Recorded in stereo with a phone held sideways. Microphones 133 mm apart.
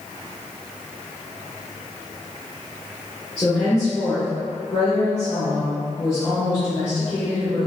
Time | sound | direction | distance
3.4 | a woman speaking | 30° left (ahead or behind) | 1.3 m